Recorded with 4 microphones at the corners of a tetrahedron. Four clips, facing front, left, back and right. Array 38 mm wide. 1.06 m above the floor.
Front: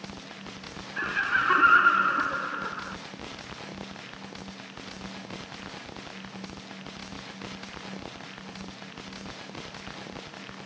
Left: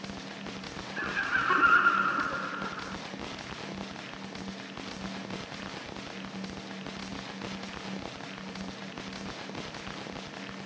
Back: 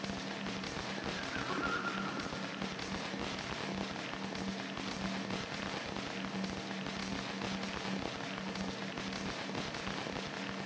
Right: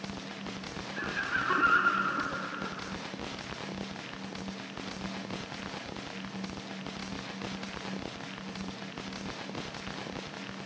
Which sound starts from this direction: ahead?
Laughter, at 1.0 s.